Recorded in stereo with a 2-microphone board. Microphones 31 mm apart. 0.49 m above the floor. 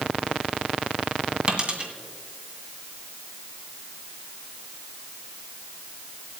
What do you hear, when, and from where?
1.5 s a dropped coin: 35° right (ahead or behind), 2 m